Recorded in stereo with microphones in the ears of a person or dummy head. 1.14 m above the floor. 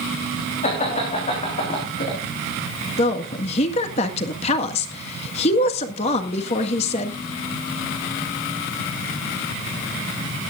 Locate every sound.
0.6 s laughter: 40° left (ahead or behind), 3 m; by 2.2 s 45° left (ahead or behind), 3.5 m
3.0 s a woman speaking: 35° left (ahead or behind), 1.7 m